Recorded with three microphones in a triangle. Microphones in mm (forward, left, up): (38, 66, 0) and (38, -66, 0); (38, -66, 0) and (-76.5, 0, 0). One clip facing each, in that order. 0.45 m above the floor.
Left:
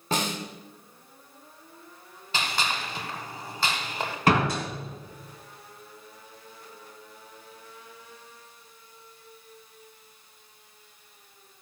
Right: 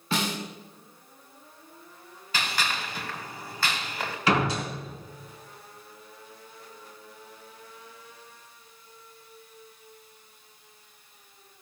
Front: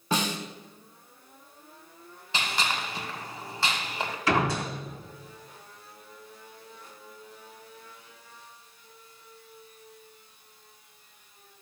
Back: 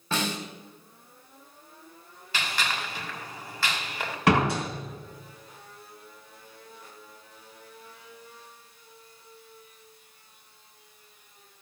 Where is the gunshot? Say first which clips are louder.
Left 1 dB, front 1 dB; 30° left, 2 m.